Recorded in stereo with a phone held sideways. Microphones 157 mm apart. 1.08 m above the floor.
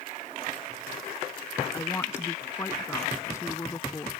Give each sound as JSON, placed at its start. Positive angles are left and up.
{"t": 1.7, "sound": "a woman speaking", "side_deg": 15}